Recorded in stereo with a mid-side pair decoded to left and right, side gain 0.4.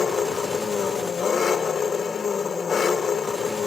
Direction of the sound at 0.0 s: 45° left.